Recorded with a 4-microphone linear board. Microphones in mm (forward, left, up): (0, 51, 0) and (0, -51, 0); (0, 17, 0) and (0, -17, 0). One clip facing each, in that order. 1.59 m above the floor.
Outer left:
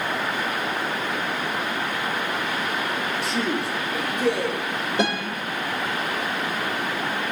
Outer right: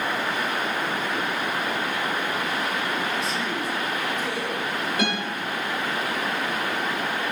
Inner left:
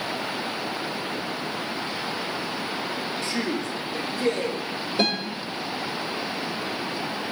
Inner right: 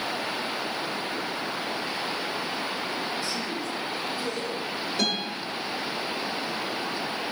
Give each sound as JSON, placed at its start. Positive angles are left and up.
{"t": 3.2, "sound": "a man speaking", "side_deg": 65, "distance_m": 2.5}
{"t": 5.0, "sound": "a guitar", "side_deg": 30, "distance_m": 6.0}